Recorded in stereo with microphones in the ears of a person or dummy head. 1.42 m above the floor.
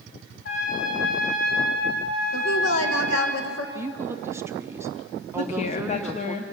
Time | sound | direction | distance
0.5 | a trumpet | 70° left (ahead or behind) | 3.5 m
2.3 | a woman speaking | 80° left | 1.8 m
3.8 | a woman speaking | 15° right (ahead or behind) | 0.6 m
5.4 | a woman speaking | 35° left (ahead or behind) | 1.1 m